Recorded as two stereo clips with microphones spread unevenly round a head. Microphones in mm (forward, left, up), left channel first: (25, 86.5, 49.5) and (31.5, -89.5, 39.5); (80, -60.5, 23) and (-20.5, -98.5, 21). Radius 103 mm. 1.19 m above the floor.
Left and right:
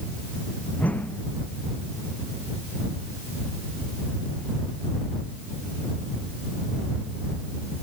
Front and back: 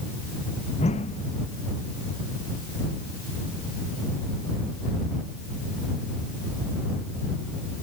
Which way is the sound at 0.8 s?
10° left.